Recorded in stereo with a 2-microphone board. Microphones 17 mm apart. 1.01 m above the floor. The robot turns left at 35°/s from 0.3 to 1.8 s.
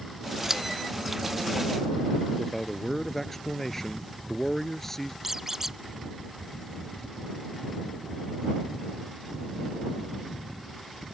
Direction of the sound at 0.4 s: 25° right (ahead or behind).